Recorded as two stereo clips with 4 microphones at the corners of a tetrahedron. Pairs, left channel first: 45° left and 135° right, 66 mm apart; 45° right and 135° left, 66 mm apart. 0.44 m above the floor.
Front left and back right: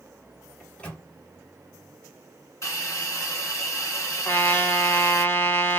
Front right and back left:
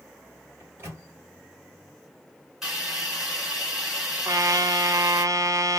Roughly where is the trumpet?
Left.